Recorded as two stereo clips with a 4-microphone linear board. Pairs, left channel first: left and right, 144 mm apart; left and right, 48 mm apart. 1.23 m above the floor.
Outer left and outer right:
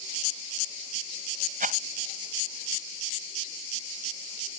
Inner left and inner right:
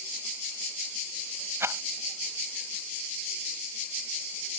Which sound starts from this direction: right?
A rattle, at 1.6 s.